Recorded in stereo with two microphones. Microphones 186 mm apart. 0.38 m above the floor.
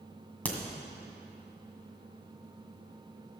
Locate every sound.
0.5 s a crack: 10° left (ahead or behind), 1.8 m